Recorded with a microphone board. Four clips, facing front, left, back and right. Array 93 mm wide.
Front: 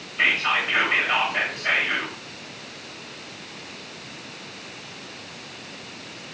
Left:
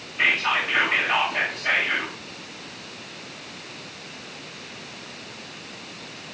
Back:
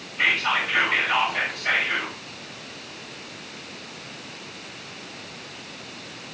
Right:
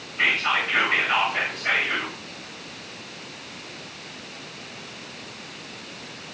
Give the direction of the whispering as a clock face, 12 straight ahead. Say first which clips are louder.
Left 1 dB, even; 12 o'clock.